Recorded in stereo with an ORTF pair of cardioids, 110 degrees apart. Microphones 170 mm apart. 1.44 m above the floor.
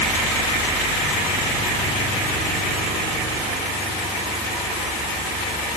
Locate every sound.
Only background noise.